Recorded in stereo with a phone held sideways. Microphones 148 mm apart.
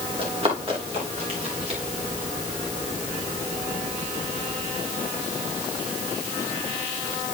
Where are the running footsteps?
40° right (ahead or behind), 9 m; by 1.8 s 45° right (ahead or behind), 10 m.